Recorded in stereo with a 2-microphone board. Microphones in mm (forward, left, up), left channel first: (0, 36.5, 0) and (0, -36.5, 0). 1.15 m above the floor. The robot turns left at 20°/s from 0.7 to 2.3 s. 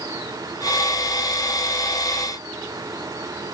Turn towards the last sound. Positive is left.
No sound to turn to.